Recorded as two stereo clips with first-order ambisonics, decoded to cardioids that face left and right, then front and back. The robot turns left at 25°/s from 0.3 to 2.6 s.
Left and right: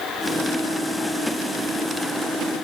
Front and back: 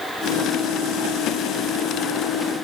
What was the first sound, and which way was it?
Only background noise.